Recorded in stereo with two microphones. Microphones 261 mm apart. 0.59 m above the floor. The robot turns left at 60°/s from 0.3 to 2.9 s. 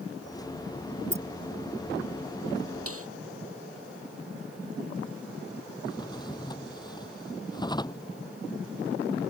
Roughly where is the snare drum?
Right.